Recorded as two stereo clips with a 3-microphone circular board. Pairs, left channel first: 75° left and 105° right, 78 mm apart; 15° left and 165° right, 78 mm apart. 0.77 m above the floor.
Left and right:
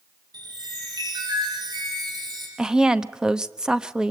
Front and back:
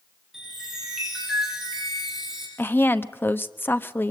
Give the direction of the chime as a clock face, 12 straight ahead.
3 o'clock.